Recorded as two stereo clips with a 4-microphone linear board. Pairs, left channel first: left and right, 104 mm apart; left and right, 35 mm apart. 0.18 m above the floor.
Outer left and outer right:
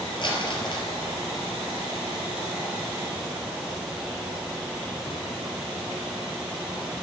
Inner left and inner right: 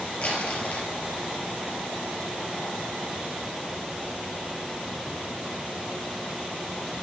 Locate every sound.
0.2 s crumpling: 45° left (ahead or behind), 2.5 m